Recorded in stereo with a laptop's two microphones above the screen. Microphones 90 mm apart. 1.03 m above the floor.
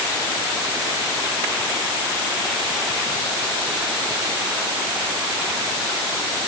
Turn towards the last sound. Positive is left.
No sound to turn to.